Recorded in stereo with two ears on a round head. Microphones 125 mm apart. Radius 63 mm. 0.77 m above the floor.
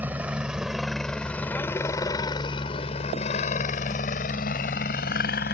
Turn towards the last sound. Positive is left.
turn(degrees=75)  # may be behind; listen again after turning